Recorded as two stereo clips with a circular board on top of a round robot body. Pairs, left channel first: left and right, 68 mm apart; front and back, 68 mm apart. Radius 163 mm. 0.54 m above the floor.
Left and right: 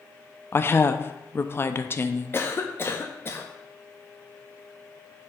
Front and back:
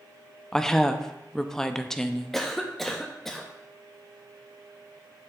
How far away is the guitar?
No guitar in this recording.